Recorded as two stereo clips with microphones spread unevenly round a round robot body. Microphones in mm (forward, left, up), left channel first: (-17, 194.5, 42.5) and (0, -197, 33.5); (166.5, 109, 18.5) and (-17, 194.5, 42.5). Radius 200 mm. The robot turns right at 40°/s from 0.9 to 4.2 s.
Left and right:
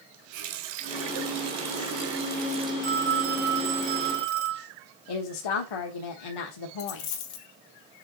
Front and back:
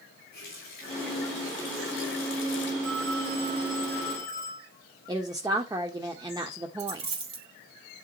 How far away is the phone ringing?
About 2.5 m.